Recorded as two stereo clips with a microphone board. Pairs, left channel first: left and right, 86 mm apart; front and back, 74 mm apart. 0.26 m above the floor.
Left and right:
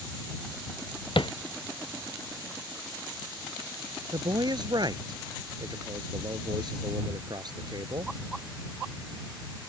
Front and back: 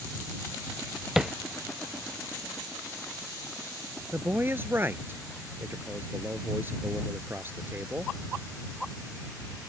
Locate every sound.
1.2 s tapping: 100° left
4.1 s a man speaking: 120° right